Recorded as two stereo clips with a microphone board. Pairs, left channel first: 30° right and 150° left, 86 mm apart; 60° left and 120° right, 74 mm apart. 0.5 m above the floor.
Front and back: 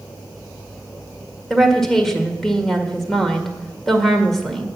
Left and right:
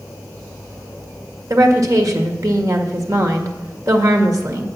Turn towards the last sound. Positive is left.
turn(degrees=-115)